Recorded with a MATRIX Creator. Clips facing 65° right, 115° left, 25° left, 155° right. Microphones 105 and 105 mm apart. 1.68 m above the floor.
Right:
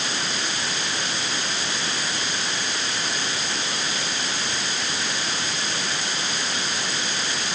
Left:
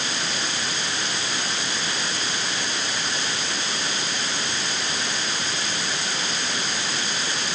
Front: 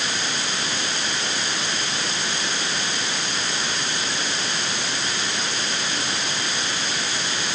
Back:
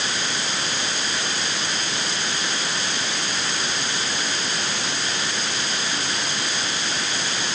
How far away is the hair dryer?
I don't hear a hair dryer.